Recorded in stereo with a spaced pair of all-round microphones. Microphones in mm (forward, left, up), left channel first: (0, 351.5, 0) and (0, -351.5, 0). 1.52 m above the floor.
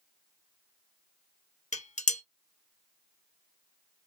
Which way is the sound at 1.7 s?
10° left (ahead or behind).